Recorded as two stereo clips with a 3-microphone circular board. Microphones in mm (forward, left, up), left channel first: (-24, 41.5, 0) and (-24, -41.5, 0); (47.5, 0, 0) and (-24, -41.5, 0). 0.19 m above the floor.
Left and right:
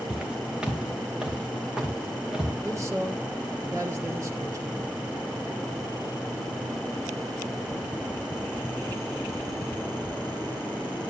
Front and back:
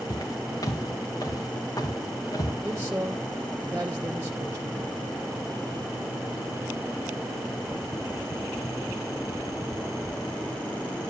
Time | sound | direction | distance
0.1 | footsteps | 10° right | 2.5 m
2.6 | a man speaking | 110° right | 1.7 m